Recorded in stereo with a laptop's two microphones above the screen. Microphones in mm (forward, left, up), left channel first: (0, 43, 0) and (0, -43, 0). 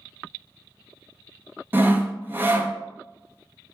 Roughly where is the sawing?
Right.